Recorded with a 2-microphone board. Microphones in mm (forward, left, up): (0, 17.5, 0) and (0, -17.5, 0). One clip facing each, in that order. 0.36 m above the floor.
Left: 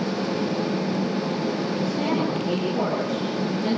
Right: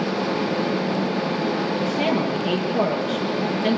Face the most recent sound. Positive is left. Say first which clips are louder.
# right 2 dB
turn(degrees=-60)  # may be behind; listen again after turning